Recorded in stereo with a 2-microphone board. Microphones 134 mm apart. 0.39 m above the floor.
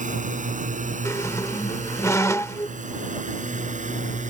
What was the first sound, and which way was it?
A drone, 70° right (ahead or behind).